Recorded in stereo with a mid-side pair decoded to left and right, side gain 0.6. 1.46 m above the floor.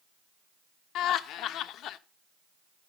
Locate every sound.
0.9 s laughter: 60° left, 1.0 m